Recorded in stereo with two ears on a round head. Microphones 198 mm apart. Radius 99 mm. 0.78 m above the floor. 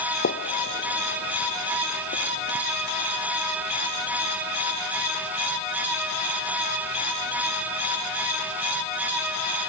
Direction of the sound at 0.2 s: 50° left (ahead or behind).